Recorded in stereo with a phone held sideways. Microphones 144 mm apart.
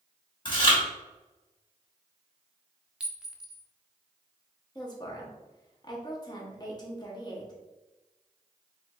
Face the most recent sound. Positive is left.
turn(degrees=30)  # may be behind; listen again after turning